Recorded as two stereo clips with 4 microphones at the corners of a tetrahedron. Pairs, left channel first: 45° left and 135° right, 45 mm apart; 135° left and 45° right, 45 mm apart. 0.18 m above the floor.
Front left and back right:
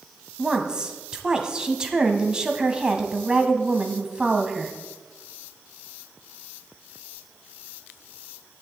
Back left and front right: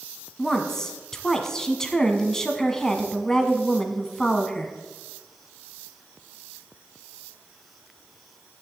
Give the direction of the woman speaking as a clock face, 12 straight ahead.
6 o'clock.